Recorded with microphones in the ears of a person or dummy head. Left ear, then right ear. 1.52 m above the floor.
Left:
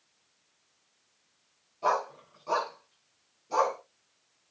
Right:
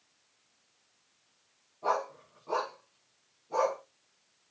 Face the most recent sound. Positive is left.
turn(degrees=75)  # may be behind; listen again after turning